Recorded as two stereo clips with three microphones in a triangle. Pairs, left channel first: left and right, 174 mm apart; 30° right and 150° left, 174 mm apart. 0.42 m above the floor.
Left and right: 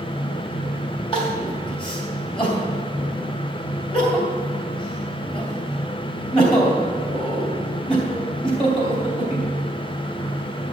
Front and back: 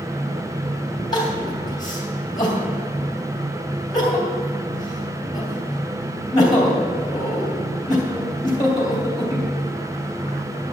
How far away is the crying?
About 3 m.